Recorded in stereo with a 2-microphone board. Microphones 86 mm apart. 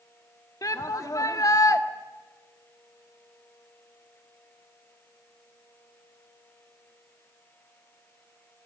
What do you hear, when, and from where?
0.6 s a shout: 45° left (ahead or behind), 1.6 m